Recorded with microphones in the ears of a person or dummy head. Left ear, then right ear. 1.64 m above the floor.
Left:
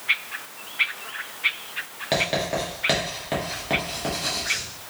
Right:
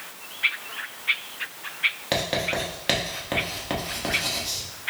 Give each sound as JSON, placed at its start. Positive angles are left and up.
{"t": 2.1, "sound": "writing", "side_deg": -10, "distance_m": 1.0}